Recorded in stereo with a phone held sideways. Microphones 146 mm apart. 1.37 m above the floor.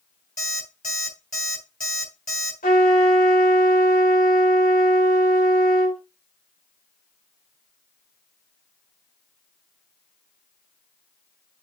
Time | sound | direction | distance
0.4 | an alarm clock | 80° left | 4 m
2.6 | a trumpet | 80° left | 3.5 m